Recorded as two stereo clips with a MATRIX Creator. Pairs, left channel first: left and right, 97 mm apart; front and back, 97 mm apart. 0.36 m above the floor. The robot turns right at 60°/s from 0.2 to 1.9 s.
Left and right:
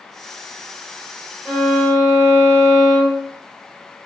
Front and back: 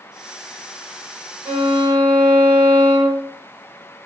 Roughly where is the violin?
Behind.